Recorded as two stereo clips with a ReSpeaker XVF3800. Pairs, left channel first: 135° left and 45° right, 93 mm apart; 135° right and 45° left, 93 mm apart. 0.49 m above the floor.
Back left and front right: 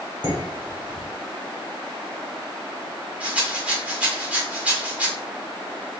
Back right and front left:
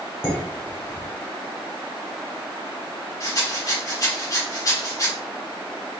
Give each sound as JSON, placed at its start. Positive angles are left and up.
{"t": 0.2, "sound": "dishes clattering", "azimuth_deg": -70, "distance_m": 2.0}
{"t": 3.2, "sound": "a rattle", "azimuth_deg": -110, "distance_m": 1.5}